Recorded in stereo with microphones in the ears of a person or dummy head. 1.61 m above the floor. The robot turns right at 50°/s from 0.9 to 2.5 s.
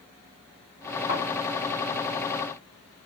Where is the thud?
35° left (ahead or behind), 1.8 m; by 1.2 s 25° left (ahead or behind), 1.8 m.